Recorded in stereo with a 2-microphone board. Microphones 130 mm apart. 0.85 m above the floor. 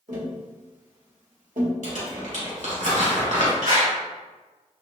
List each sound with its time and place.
0.1 s tapping: 80° right, 1.2 m
1.8 s crumpling: 75° right (ahead or behind), 1.9 m
3.6 s a clap: 75° right (ahead or behind), 1.7 m